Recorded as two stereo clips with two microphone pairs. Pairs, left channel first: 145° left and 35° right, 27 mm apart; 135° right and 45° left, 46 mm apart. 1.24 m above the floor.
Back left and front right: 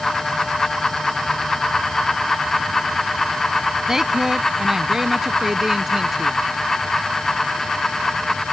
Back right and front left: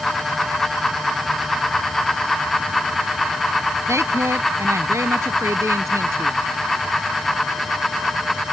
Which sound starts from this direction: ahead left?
A woman speaking, at 3.9 s.